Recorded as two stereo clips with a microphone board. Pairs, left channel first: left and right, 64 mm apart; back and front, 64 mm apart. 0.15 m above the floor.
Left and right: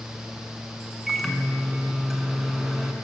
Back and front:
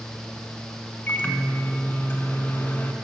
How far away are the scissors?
No scissors in this recording.